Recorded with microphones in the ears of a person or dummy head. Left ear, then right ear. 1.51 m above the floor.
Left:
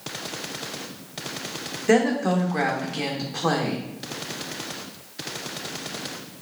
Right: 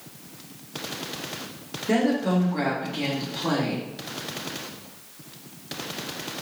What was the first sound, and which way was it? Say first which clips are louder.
A woman speaking: left 3 dB; 40° left (ahead or behind).